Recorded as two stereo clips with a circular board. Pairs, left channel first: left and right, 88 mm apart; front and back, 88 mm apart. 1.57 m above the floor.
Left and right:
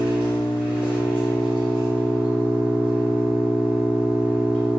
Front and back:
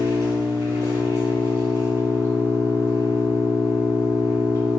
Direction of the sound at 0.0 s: 165° right.